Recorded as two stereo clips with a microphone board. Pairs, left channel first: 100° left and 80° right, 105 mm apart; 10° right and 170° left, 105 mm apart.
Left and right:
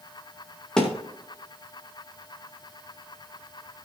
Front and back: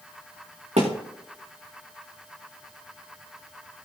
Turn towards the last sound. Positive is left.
turn(degrees=-175)